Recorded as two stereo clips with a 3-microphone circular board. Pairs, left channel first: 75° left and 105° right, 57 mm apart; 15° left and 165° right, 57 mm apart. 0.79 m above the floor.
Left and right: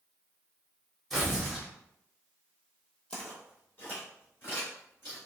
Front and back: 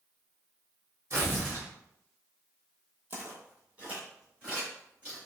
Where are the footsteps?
140° left, 1.4 m; by 5.2 s 125° left, 3.5 m.